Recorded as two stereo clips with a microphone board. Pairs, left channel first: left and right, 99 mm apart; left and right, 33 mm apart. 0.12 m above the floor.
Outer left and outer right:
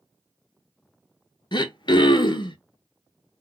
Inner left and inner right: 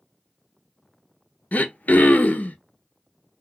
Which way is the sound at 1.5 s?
50° left (ahead or behind).